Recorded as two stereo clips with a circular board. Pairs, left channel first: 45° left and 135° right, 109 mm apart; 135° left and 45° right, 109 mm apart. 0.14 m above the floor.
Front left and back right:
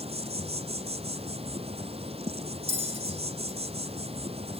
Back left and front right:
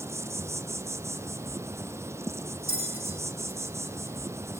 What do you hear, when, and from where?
0.0 s an insect: 110° right, 0.8 m
2.7 s a bell: 160° right, 3.5 m